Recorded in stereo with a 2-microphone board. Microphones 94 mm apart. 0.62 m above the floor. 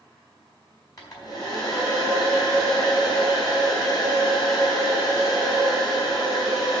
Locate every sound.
1.0 s a hair dryer: 45° left (ahead or behind), 3.5 m